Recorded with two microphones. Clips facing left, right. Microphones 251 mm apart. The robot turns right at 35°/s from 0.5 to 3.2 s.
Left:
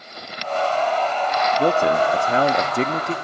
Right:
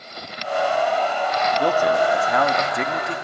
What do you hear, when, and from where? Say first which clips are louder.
1.6 s a man speaking: left 1 dB; 45° left, 0.7 m; by 3.1 s 100° left, 0.7 m